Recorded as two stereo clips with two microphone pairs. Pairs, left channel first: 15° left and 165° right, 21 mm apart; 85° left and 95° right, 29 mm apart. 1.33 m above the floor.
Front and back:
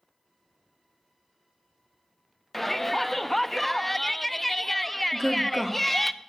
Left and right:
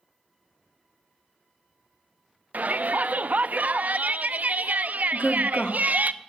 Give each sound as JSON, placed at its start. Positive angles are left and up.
{"t": 2.5, "sound": "a shout", "azimuth_deg": -65, "distance_m": 0.6}
{"t": 5.1, "sound": "a woman speaking", "azimuth_deg": 135, "distance_m": 1.3}